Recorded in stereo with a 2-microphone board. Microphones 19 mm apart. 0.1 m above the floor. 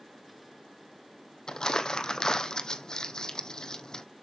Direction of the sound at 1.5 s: 40° left (ahead or behind).